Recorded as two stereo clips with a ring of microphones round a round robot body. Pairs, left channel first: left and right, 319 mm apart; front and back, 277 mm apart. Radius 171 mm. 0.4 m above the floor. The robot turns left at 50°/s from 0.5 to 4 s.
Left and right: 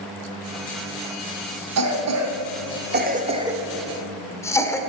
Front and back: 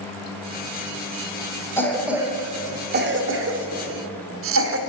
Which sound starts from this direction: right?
A cough, at 1.8 s.